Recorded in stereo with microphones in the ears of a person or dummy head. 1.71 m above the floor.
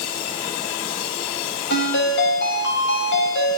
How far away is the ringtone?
About 6 m.